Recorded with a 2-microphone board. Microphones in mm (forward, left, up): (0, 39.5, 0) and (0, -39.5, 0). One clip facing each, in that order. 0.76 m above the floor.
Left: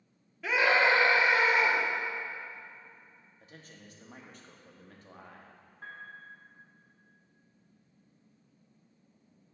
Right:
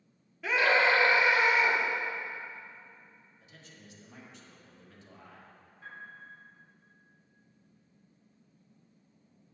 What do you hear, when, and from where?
0.4 s a scream: centre (ahead or behind), 1.0 m; by 1.8 s 40° left (ahead or behind), 2 m
3.4 s a man speaking: 50° left (ahead or behind), 1.0 m
5.8 s a piano: 60° left (ahead or behind), 1.7 m